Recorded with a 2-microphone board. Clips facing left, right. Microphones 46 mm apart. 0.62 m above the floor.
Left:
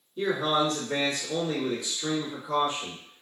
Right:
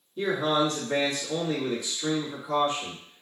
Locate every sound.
0.2 s a man speaking: 5° right (ahead or behind), 1.4 m